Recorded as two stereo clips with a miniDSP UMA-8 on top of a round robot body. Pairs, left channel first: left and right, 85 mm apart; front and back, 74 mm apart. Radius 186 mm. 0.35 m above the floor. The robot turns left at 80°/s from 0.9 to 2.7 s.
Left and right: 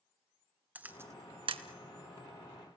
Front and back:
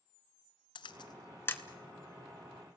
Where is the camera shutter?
15° right, 1.0 m; by 1.6 s 75° right, 1.0 m.